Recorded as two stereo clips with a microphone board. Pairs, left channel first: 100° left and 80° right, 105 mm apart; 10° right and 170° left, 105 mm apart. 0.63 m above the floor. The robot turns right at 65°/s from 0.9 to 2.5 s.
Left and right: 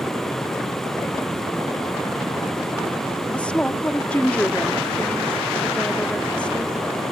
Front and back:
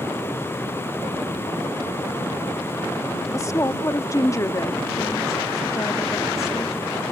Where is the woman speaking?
30° left.